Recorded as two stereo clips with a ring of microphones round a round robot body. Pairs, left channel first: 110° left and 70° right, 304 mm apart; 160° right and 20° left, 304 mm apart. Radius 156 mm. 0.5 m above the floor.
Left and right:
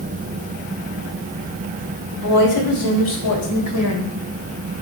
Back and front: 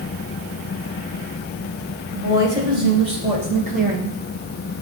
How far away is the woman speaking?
About 3 m.